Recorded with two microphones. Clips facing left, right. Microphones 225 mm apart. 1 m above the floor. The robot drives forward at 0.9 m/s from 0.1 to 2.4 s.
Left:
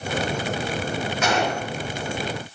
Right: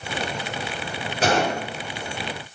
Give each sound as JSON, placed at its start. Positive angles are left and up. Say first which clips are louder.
{"t": 1.2, "sound": "a gunshot", "louder": "right 4 dB", "side_deg": -35, "distance_m": 4.5}